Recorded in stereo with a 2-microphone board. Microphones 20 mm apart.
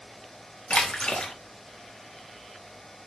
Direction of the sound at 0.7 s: 55° left (ahead or behind).